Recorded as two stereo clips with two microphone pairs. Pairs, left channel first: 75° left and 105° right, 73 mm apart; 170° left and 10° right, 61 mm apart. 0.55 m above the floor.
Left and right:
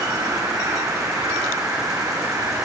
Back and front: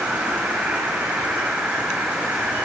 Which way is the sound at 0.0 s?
75° right.